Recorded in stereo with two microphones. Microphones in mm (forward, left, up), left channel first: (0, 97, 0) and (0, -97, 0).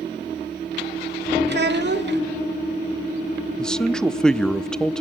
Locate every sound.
1.5 s a child speaking: 65° right (ahead or behind), 1.4 m
3.6 s a man speaking: 5° left (ahead or behind), 0.6 m